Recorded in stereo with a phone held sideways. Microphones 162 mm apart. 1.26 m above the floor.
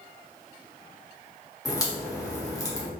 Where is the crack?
20° left (ahead or behind), 1.3 m.